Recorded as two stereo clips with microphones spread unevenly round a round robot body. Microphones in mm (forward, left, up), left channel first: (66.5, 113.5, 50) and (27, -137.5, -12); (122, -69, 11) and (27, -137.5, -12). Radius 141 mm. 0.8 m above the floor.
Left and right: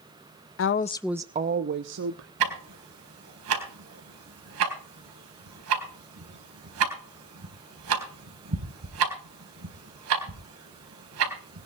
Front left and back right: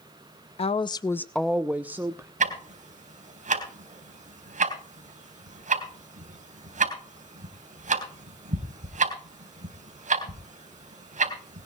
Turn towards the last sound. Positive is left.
turn(degrees=-140)